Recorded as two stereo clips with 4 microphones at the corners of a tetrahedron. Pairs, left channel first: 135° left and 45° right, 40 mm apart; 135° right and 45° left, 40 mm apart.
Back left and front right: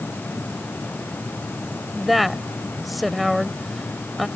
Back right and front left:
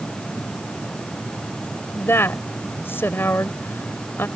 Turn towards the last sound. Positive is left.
turn(degrees=-135)